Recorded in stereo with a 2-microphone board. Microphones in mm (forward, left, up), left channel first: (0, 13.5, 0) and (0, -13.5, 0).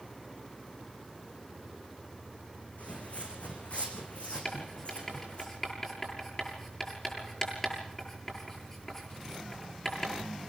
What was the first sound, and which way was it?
Footsteps, 60° left (ahead or behind).